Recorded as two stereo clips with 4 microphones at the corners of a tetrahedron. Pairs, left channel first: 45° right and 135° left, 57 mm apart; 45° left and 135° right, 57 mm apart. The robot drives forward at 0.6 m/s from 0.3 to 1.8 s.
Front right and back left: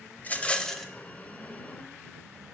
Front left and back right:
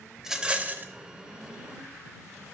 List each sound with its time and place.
0.2 s a rattle: 60° right, 0.5 m; by 0.9 s 130° right, 0.5 m